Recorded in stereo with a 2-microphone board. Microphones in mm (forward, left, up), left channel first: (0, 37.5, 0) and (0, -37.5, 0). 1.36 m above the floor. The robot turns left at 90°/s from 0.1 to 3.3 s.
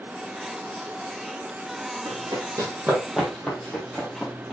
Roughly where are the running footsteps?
Right.